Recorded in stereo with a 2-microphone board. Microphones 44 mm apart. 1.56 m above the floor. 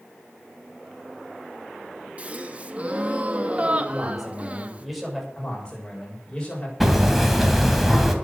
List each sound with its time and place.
2.2 s a gasp: 30° right (ahead or behind), 1.0 m
3.9 s a man speaking: 5° right (ahead or behind), 8 m
5.3 s a man speaking: 20° left (ahead or behind), 7 m
6.8 s hammering: 5° right (ahead or behind), 2 m